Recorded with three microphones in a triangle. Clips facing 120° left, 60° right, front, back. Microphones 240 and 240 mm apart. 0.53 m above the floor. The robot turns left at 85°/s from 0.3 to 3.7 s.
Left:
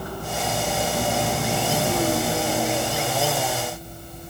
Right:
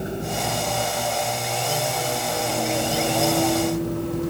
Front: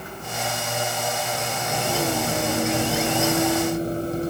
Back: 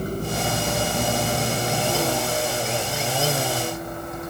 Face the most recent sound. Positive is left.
turn(degrees=-55)